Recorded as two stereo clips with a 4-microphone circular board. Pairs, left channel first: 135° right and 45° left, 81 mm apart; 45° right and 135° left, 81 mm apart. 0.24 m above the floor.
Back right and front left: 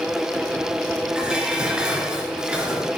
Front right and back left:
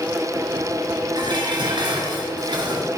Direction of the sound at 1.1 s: 125° left.